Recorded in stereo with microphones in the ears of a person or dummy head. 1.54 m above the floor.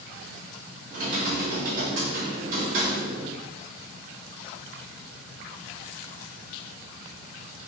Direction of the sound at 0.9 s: 45° right (ahead or behind).